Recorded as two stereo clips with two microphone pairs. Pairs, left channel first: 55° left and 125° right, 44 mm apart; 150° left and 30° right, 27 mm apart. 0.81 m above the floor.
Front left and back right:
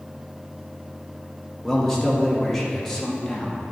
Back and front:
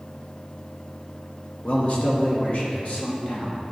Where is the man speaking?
135° left, 1.0 m.